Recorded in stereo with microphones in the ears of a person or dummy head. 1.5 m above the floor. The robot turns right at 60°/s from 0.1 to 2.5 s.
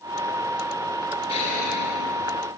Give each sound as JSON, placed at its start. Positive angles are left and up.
{"t": 1.3, "sound": "an explosion", "azimuth_deg": 35, "distance_m": 3.5}